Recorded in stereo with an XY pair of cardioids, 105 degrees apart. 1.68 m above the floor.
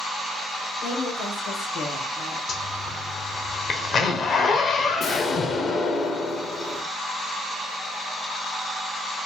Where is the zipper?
55° left, 1.0 m.